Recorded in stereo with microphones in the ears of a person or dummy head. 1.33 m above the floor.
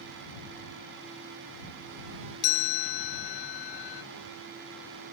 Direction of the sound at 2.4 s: 60° left (ahead or behind).